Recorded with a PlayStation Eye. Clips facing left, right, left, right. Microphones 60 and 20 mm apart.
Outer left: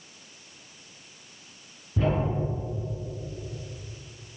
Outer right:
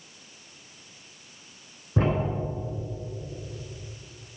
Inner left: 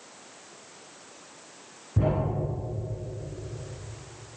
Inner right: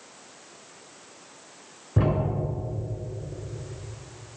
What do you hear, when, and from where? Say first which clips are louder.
2.0 s a thud: outer right 1 dB, inner right 2 dB; 50° right (ahead or behind), 3.5 m